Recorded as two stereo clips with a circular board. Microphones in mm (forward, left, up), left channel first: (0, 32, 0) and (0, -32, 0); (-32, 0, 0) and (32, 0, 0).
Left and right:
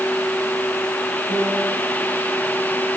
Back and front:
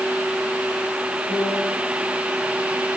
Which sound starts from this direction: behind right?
A piano, at 1.3 s.